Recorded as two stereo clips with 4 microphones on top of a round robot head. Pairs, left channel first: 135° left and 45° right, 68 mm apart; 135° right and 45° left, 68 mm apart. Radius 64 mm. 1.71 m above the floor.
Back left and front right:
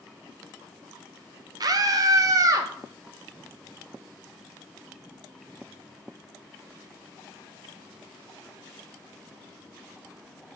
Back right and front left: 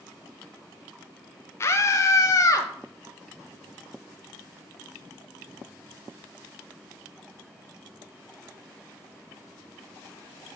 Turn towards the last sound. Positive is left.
turn(degrees=-90)